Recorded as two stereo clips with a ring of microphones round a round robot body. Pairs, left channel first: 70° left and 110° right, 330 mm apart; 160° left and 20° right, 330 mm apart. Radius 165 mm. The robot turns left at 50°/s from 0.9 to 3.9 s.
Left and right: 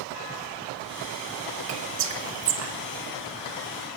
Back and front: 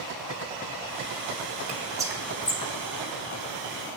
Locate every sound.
1.7 s whispering: 85° right, 1.0 m; by 2.7 s 135° right, 1.0 m